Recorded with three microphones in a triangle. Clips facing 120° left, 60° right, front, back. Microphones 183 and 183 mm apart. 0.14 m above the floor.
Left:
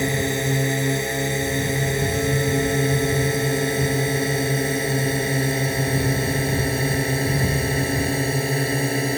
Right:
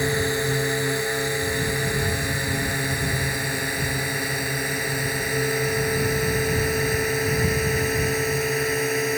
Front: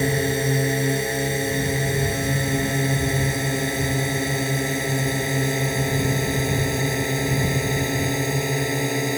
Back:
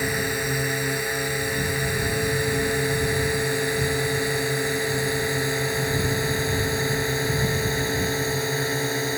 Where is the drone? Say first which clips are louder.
Left 1 dB, front 5 dB; 55° left; by 9.2 s 65° left.